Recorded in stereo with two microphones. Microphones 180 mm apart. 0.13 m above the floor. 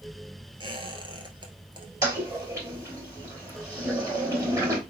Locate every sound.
0.6 s a squeak: 25° right (ahead or behind), 1.4 m
2.0 s a toilet flushing: 20° right (ahead or behind), 2.5 m